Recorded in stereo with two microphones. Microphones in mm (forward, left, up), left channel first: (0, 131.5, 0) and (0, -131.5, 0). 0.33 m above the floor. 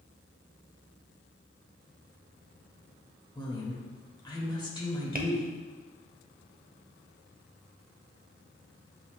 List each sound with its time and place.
3.4 s a woman speaking: 15° left (ahead or behind), 1.0 m
5.2 s tapping: 35° right (ahead or behind), 0.6 m